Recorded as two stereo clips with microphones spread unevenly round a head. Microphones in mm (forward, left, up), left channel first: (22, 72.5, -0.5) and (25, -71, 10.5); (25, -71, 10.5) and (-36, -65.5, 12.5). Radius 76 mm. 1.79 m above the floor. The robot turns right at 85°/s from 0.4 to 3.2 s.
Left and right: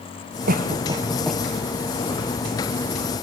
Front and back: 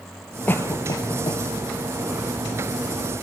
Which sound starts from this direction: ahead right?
A cough, at 0.5 s.